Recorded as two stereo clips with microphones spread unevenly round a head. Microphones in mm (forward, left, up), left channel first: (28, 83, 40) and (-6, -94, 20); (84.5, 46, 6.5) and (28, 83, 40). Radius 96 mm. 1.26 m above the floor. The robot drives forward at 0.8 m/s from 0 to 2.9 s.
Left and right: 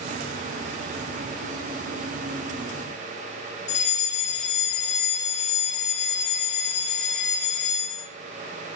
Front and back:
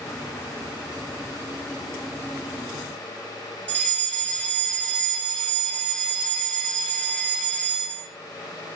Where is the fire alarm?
30° left, 6 m.